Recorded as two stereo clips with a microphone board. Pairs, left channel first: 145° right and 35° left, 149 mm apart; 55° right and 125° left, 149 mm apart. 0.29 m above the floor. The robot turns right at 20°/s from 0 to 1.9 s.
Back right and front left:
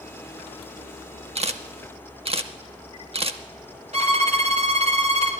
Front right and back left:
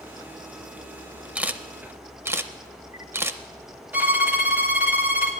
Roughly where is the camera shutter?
Ahead left.